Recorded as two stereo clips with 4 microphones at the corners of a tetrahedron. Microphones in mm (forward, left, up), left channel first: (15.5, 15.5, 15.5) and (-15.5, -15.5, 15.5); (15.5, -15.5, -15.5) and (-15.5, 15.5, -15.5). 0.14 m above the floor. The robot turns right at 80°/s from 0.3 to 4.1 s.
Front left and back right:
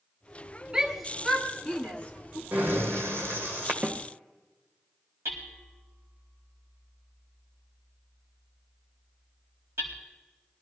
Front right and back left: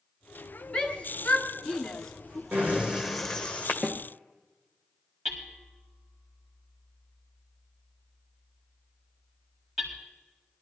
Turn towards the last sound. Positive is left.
turn(degrees=-130)